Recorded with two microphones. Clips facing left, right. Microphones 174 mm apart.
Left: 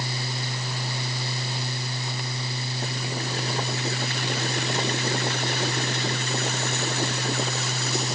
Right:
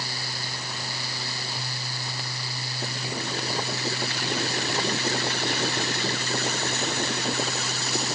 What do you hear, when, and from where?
Only background noise.